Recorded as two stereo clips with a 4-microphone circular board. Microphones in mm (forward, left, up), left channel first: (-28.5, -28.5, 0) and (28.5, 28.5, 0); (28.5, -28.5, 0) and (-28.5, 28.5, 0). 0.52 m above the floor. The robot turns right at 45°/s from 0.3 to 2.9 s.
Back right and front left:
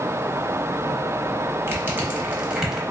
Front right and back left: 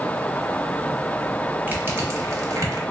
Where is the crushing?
85° left, 0.8 m; by 2.8 s 135° left, 0.8 m.